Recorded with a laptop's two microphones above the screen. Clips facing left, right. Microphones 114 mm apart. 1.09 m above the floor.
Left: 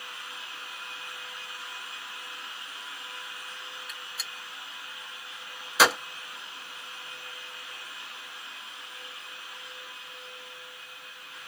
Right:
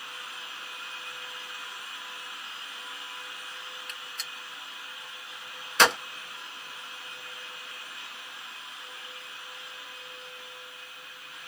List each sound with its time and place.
3.9 s a gunshot: 5° left (ahead or behind), 0.5 m